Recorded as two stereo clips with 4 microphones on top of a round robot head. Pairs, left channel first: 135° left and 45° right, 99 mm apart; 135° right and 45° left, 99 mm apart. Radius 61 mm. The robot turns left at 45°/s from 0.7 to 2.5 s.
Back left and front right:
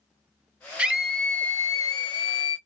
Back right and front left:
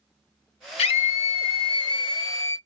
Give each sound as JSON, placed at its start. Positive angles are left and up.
{"t": 0.8, "sound": "a scream", "azimuth_deg": -125, "distance_m": 0.7}